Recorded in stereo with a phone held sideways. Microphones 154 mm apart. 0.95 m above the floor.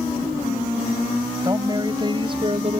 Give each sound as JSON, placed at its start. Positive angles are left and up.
{"t": 1.4, "sound": "a woman speaking", "side_deg": -25}